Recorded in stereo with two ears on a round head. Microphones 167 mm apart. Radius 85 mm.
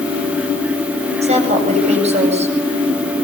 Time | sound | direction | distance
1.2 | a woman speaking | 40° right (ahead or behind) | 9 m